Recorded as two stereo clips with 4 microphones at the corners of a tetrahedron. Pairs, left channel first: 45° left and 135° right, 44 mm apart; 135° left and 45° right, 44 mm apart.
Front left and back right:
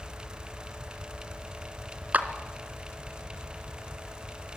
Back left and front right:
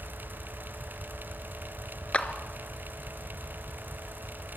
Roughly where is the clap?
Behind.